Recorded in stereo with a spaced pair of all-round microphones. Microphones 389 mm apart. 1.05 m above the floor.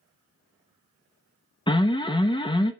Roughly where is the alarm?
Centre.